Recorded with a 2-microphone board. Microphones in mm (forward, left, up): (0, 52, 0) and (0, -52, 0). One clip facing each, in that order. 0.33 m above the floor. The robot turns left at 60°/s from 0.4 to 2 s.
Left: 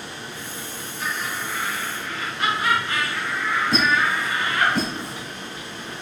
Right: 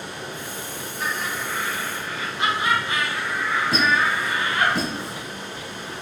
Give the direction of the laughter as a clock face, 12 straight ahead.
3 o'clock.